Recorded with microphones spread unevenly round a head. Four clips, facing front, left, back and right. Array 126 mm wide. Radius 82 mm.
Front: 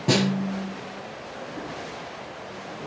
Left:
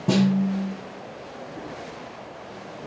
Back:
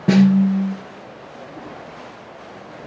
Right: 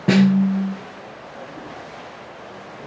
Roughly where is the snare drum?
Right.